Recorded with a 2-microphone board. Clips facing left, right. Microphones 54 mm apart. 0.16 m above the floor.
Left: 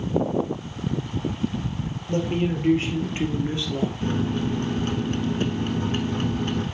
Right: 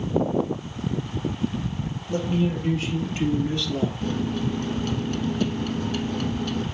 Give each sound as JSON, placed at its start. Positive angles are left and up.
{"t": 2.1, "sound": "a man speaking", "side_deg": 45, "distance_m": 3.5}
{"t": 4.0, "sound": "a microwave", "side_deg": 30, "distance_m": 1.2}